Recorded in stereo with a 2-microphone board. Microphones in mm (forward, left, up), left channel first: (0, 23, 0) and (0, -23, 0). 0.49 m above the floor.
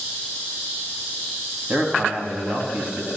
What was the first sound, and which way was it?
A man speaking, 30° right (ahead or behind).